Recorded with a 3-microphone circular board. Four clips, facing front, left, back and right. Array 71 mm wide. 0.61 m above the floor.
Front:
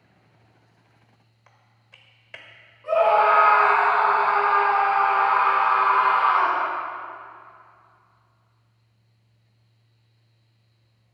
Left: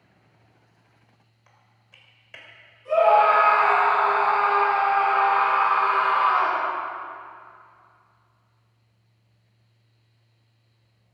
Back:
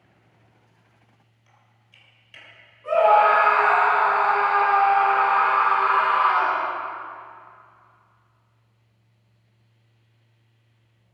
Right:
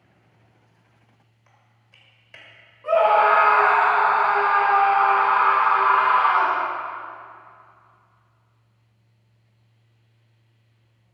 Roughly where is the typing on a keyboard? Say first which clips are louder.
Left 1 dB, front 3 dB; ahead.